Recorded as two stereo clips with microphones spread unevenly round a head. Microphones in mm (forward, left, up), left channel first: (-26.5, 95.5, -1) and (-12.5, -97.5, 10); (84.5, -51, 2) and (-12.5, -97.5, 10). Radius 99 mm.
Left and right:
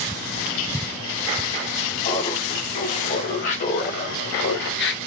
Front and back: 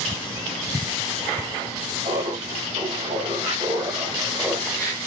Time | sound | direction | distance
2.0 | laughter | 150° left | 2.5 m